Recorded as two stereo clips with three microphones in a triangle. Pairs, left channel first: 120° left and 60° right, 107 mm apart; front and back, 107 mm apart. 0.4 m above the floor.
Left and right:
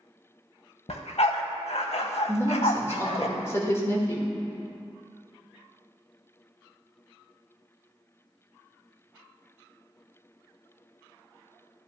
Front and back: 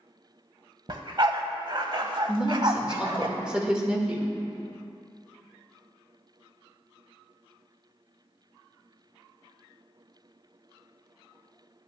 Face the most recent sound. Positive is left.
turn(degrees=110)